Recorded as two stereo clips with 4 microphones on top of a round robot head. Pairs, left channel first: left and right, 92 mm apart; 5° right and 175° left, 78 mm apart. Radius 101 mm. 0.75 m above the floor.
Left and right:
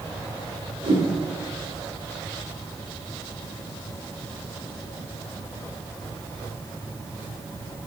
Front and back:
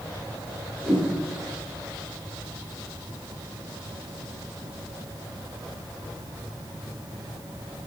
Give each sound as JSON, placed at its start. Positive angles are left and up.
{"t": 0.8, "sound": "a whoosh", "azimuth_deg": -85, "distance_m": 4.0}